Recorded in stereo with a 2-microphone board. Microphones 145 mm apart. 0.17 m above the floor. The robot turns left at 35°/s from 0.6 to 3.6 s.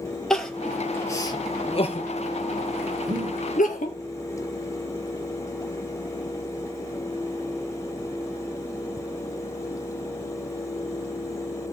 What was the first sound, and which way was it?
Crying, 5° left (ahead or behind).